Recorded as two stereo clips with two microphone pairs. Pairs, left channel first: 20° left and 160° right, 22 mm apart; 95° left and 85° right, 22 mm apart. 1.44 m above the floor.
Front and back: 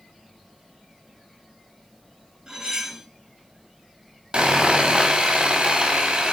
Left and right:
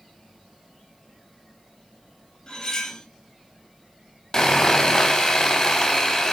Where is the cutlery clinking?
135° left, 4 m.